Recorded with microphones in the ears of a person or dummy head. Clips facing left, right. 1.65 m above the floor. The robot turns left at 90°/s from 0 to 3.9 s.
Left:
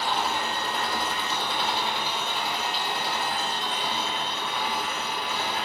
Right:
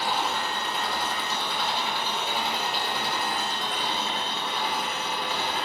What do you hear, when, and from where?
0.0 s an engine running: 165° right, 4 m; by 5.7 s 155° right, 4 m